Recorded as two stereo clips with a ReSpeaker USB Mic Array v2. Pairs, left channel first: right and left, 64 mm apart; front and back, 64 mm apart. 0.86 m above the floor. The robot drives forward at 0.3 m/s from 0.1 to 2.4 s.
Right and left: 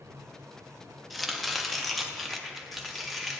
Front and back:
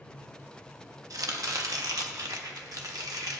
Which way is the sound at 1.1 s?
Straight behind.